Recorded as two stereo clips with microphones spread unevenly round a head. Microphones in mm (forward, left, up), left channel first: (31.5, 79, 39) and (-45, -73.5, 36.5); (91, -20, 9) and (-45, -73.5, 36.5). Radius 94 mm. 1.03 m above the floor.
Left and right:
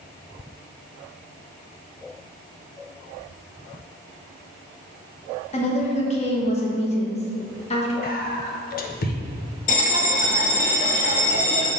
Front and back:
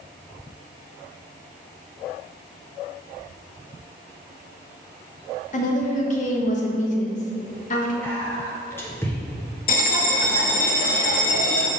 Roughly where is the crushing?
No crushing in this recording.